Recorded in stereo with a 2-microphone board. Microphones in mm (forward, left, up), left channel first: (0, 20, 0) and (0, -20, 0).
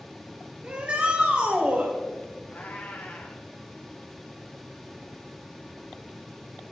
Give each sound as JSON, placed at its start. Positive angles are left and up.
{"t": 0.6, "sound": "a shout", "side_deg": -30, "distance_m": 3.0}
{"t": 2.5, "sound": "a cat meowing", "side_deg": 40, "distance_m": 5.0}